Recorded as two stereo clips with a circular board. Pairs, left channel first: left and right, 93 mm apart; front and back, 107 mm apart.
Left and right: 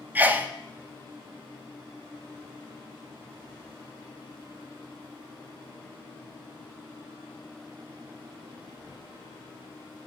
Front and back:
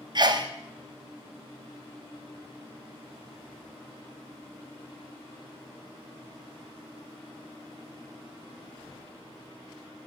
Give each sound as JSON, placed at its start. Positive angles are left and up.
{"t": 0.1, "sound": "a sneeze", "azimuth_deg": -155, "distance_m": 0.5}